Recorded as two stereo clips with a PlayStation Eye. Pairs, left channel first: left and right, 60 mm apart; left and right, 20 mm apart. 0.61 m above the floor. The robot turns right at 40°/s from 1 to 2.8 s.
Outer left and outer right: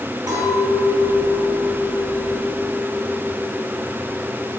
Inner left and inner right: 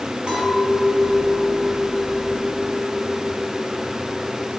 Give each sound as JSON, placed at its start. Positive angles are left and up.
{"t": 0.3, "sound": "a clink", "azimuth_deg": -105, "distance_m": 4.0}